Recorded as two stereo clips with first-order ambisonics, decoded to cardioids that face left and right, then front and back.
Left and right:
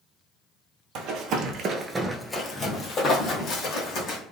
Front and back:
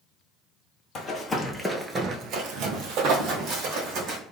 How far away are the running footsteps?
About 1.0 m.